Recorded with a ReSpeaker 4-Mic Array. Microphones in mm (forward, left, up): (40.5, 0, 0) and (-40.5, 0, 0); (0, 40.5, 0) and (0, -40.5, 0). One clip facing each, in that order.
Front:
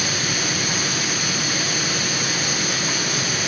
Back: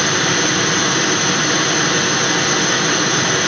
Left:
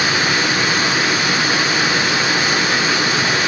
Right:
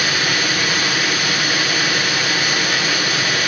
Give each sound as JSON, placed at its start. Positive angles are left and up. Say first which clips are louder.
{"t": 0.0, "sound": "running water", "louder": "back 8 dB, left 3 dB", "azimuth_deg": 155, "distance_m": 2.5}